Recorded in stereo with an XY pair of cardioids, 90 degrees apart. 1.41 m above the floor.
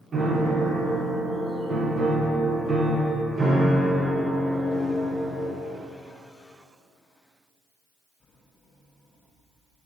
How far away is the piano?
About 0.8 m.